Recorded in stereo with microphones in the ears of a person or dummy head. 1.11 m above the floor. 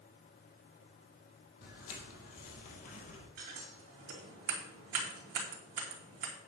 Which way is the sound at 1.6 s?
55° left (ahead or behind).